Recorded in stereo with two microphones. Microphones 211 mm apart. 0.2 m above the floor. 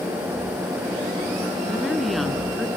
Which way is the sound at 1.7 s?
Centre (ahead or behind).